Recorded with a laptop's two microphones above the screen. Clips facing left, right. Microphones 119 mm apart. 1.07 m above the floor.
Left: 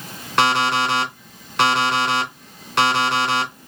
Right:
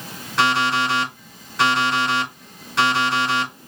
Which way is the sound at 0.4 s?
80° left.